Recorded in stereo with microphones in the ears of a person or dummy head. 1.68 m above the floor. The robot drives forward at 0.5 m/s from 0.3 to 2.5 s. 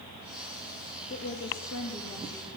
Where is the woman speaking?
70° left (ahead or behind), 3.5 m; by 2.5 s 65° left (ahead or behind), 4 m.